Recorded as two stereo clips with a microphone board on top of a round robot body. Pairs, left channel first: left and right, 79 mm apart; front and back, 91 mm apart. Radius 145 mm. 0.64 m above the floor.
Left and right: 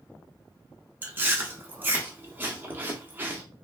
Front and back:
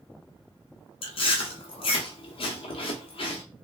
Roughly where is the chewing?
Ahead right.